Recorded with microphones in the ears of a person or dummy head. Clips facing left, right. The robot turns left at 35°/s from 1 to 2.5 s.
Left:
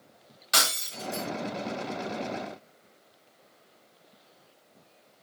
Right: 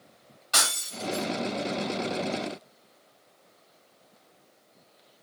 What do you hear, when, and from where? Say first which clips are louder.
0.5 s breaking glass: even; 25° left (ahead or behind), 1.5 m; by 1.3 s 15° left (ahead or behind), 1.5 m